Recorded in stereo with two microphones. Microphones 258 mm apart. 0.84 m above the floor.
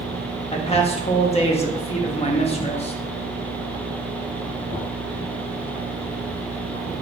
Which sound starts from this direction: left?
A man speaking, at 0.5 s.